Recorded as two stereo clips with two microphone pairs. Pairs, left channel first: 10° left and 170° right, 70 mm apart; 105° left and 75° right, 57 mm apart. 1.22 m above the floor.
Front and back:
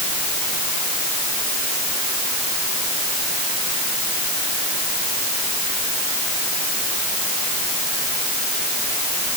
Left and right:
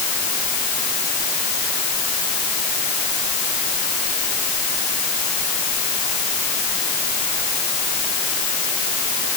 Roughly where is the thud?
No thud in this recording.